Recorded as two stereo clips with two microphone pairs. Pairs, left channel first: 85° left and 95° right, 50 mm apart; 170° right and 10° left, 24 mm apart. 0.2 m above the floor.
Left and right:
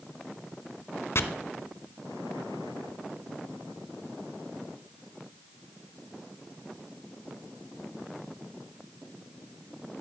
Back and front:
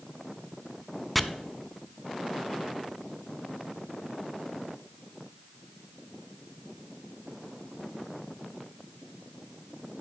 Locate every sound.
1.1 s chopping: 105° left, 0.5 m